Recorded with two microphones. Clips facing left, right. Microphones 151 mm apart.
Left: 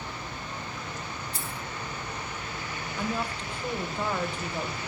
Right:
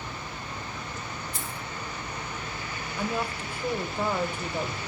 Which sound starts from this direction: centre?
A woman speaking, at 3.0 s.